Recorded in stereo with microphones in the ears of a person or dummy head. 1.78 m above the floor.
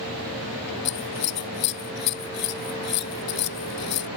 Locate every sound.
0.8 s scissors: 55° left (ahead or behind)